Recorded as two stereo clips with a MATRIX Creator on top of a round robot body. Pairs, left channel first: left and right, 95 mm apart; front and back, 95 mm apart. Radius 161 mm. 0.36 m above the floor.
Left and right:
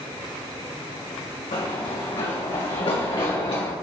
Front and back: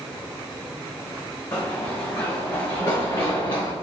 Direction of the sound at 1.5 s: 65° left.